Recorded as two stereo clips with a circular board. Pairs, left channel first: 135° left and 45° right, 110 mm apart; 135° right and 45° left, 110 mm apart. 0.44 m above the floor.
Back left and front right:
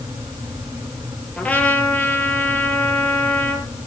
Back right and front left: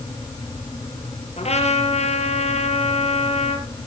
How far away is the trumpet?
About 5 m.